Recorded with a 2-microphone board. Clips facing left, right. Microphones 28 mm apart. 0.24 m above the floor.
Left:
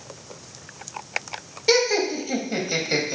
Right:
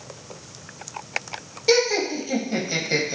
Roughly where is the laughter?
Centre.